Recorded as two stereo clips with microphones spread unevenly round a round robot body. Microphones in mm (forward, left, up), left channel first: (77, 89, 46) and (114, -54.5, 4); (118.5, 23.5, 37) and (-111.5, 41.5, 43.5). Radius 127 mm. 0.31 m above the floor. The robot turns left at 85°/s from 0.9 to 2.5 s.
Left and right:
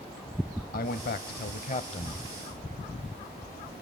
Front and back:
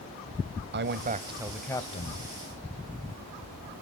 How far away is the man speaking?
About 1.5 m.